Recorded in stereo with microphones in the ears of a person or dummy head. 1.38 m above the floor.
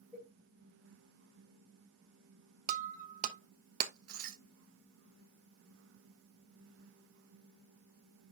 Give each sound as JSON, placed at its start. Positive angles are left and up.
{"t": 0.1, "sound": "a cowbell", "side_deg": -10, "distance_m": 5.0}
{"t": 2.7, "sound": "breaking glass", "side_deg": -45, "distance_m": 1.0}